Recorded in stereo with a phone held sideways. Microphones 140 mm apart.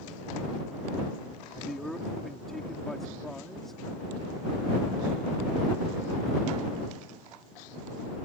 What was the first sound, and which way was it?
A man speaking, 5° left (ahead or behind).